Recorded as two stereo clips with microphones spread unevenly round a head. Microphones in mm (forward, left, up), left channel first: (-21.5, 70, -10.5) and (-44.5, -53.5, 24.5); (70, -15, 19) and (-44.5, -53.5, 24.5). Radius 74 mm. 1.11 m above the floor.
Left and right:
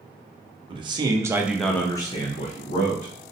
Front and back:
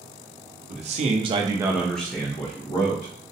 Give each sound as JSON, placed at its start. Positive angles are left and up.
{"t": 0.7, "sound": "a man speaking", "azimuth_deg": -155, "distance_m": 0.8}